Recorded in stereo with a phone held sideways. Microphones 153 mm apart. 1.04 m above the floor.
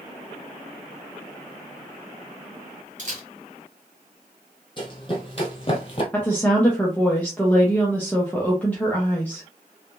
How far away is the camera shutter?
About 2 m.